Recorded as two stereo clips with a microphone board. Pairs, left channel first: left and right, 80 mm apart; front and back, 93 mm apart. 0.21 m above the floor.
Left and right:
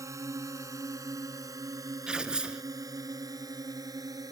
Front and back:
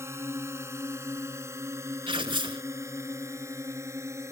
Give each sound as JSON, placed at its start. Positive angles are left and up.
{"t": 0.0, "sound": "a drone", "azimuth_deg": -125}
{"t": 2.1, "sound": "tearing paper", "azimuth_deg": -170}